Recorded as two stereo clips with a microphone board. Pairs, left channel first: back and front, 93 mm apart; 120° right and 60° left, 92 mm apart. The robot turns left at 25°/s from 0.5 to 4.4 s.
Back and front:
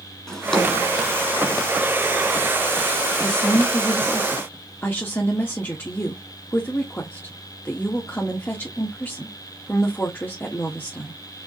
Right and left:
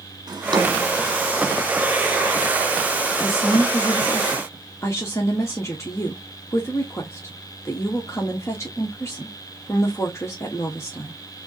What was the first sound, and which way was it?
A drawer, 95° left.